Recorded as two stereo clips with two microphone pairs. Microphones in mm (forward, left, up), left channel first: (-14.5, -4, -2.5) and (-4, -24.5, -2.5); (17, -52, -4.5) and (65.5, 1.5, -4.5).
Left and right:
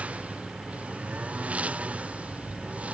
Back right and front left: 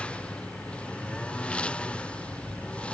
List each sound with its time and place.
0.0 s a lawn mower: 60° right